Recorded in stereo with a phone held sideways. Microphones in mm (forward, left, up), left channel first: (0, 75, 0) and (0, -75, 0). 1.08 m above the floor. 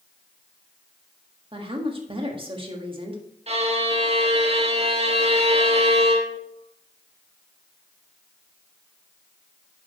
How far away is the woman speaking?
About 1.6 m.